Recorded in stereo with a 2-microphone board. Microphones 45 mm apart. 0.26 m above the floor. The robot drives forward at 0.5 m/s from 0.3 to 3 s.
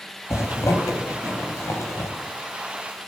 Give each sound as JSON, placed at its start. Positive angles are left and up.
{"t": 0.3, "sound": "a zipper", "side_deg": 80, "distance_m": 3.5}